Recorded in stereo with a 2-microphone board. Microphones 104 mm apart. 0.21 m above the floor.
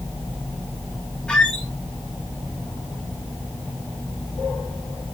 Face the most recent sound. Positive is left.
turn(degrees=5)  # may be behind; listen again after turning